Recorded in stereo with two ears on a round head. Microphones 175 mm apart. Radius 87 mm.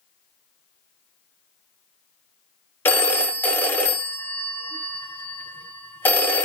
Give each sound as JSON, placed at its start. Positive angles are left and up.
{"t": 2.9, "sound": "a phone ringing", "side_deg": 10, "distance_m": 0.7}